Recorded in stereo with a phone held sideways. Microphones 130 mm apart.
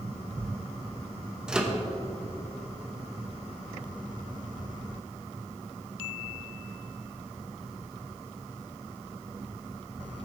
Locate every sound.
1.5 s a microwave: 5° right (ahead or behind), 0.9 m